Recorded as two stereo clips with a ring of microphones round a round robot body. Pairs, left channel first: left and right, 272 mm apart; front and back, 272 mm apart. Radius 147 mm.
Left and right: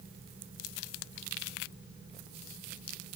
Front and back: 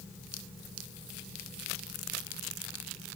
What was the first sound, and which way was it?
Only background noise.